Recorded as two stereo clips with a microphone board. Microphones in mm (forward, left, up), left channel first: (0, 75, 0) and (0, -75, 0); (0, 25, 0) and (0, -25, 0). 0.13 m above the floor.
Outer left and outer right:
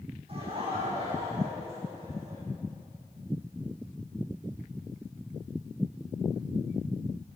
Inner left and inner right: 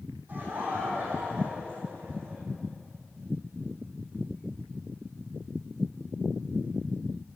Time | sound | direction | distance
0.3 | laughter | 45° right (ahead or behind) | 6 m